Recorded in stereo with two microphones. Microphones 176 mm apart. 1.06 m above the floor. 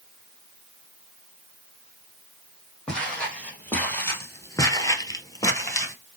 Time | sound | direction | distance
2.9 | footsteps | 5° left (ahead or behind) | 2.5 m